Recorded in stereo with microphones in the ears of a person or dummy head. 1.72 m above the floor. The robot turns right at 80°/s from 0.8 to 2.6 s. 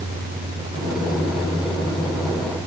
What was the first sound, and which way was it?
Only background noise.